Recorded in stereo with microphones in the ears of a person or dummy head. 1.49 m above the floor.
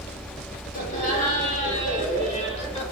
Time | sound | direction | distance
0.7 | laughter | 45° left (ahead or behind) | 5.5 m